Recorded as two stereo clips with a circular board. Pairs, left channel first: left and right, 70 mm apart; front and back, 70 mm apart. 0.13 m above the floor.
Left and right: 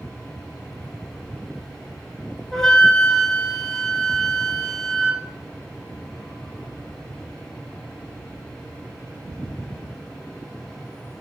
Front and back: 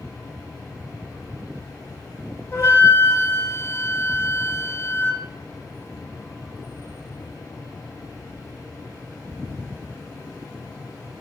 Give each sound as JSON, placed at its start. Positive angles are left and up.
{"t": 2.5, "sound": "a flute", "azimuth_deg": 15, "distance_m": 2.0}